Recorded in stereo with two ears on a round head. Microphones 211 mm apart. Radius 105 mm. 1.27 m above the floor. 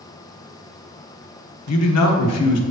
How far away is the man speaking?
About 1.1 m.